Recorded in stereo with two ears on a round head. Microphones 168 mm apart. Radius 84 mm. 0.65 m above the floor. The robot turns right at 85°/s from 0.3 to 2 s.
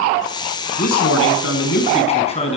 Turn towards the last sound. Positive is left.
turn(degrees=145)